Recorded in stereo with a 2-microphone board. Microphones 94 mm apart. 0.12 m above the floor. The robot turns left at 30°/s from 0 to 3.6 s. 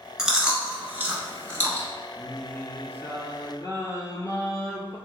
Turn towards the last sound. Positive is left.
turn(degrees=135)